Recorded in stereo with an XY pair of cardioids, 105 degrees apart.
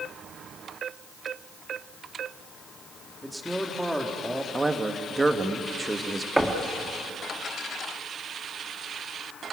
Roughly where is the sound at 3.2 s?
Ahead.